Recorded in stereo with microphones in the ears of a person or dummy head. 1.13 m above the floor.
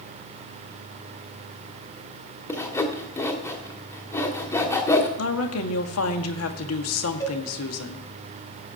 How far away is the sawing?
About 1.5 m.